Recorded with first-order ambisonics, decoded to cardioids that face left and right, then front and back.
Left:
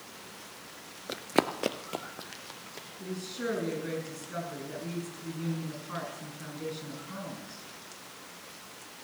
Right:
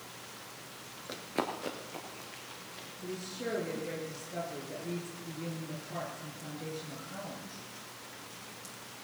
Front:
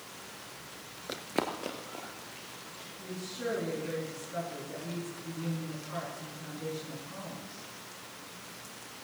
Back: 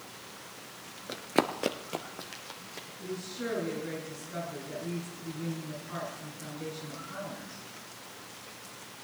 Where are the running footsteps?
70° left, 0.6 m; by 2.9 s 135° left, 2.5 m.